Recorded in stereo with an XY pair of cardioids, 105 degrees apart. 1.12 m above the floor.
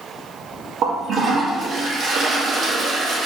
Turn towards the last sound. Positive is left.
turn(degrees=-60)